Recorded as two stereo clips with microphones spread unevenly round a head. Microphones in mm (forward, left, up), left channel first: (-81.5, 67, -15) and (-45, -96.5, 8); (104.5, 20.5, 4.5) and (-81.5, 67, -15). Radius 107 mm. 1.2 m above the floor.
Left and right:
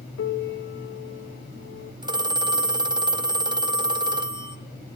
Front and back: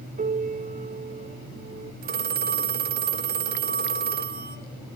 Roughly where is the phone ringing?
Behind right.